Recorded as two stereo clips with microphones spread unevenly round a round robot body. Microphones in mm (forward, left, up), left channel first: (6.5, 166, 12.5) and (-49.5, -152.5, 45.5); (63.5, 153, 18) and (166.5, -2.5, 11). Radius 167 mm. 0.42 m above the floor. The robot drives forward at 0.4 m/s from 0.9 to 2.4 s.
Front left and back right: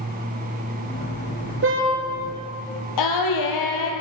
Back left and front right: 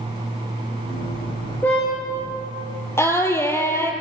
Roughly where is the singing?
Ahead left.